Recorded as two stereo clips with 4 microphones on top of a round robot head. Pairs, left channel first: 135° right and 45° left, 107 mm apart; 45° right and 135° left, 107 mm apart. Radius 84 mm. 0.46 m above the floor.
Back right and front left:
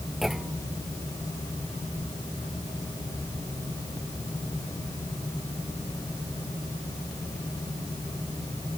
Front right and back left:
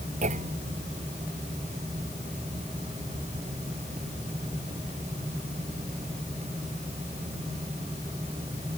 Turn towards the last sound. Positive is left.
turn(degrees=130)